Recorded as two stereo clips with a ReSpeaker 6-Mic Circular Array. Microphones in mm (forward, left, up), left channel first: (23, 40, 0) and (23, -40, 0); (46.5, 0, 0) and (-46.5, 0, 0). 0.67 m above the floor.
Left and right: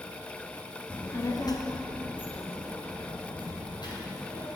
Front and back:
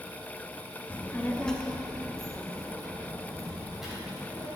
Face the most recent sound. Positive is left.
turn(degrees=95)